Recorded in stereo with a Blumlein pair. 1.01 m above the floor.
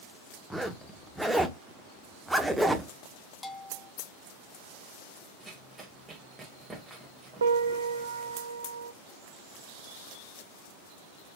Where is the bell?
15° left, 0.8 m.